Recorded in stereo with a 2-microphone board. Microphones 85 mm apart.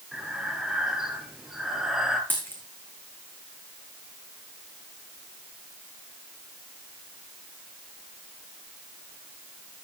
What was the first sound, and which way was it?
Breathing, 5° right (ahead or behind).